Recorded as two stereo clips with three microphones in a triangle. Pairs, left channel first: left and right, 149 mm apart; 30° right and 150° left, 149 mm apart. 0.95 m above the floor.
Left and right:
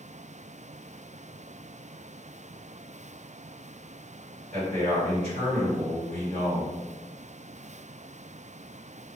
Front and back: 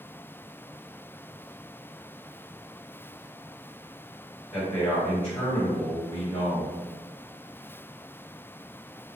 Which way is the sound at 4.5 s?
105° right.